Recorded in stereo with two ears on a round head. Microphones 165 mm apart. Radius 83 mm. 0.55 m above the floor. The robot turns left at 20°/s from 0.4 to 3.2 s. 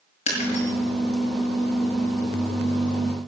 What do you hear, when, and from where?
0.3 s breaking glass: 40° left (ahead or behind), 6 m; by 0.7 s 45° left (ahead or behind), 6 m